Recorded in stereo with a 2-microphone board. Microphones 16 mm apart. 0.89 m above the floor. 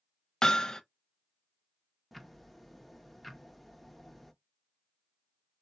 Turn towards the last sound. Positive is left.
turn(degrees=-5)  # may be behind; listen again after turning